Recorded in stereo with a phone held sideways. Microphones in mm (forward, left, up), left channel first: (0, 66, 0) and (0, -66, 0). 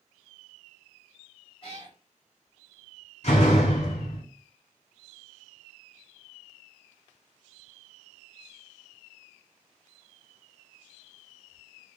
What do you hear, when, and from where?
1.6 s a cat meowing: 45° left (ahead or behind), 2 m
3.2 s a door slam: 55° left (ahead or behind), 2.5 m